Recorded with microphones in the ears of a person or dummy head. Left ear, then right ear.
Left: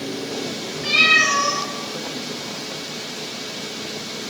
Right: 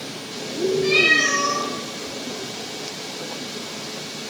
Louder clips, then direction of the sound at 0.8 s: Left 3 dB; 25° left (ahead or behind).